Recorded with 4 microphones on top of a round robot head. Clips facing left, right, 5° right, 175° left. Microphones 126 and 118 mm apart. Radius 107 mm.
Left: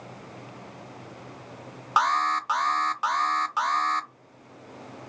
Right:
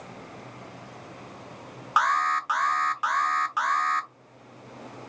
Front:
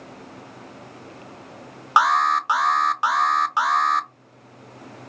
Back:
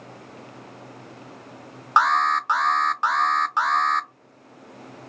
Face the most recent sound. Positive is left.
turn(degrees=70)